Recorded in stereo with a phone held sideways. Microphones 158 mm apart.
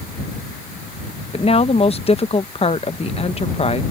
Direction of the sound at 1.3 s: 40° left (ahead or behind).